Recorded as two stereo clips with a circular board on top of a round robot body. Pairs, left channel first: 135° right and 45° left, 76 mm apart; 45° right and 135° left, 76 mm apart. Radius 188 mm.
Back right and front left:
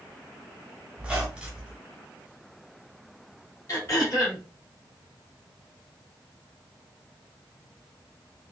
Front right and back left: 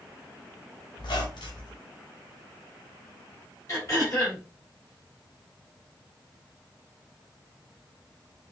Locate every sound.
1.0 s a squeak: 35° right, 1.3 m
3.7 s throat clearing: 90° right, 2.5 m